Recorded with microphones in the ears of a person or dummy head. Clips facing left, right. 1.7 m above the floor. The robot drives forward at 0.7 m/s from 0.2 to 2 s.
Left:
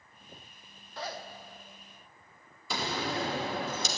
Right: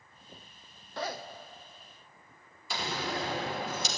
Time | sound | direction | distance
1.0 | a zipper | 50° right (ahead or behind) | 0.6 m
2.7 | a door slam | 75° left (ahead or behind) | 2.5 m